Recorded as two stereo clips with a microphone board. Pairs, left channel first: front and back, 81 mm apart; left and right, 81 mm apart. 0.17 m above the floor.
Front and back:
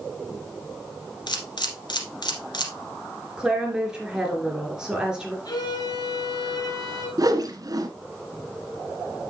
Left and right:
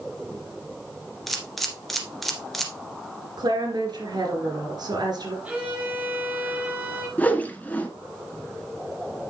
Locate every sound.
1.3 s a camera shutter: straight ahead, 1.7 m
3.4 s a woman speaking: 100° right, 3 m
5.5 s a violin: 20° right, 2.5 m
7.2 s a whoosh: 155° left, 1.0 m